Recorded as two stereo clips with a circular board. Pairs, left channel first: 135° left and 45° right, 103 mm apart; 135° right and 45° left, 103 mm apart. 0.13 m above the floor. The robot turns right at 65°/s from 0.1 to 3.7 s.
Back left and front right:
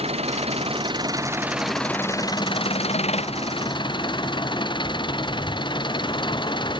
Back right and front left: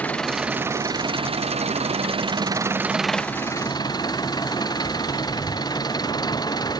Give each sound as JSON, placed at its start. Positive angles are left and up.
{"t": 0.0, "sound": "an engine running", "azimuth_deg": -60}